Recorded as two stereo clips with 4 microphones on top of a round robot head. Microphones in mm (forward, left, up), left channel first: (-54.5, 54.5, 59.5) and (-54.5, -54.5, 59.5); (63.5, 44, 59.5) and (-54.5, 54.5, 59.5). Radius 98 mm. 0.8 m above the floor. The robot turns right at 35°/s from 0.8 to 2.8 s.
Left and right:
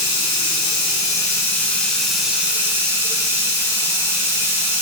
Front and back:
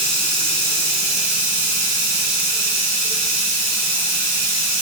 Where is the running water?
135° left, 3 m; by 4.8 s 155° right, 3 m.